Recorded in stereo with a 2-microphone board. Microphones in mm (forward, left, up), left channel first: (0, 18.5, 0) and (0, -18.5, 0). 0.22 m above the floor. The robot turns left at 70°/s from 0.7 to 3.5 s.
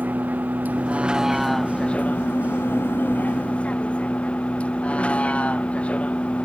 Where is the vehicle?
130° right; by 6.5 s 35° left.